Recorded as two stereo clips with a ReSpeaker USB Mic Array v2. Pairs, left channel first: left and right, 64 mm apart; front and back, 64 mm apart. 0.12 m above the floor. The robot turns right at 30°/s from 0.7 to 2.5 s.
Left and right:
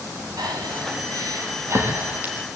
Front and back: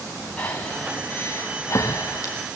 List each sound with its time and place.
0.4 s breathing: 75° right, 5 m; by 2.3 s 25° right, 5 m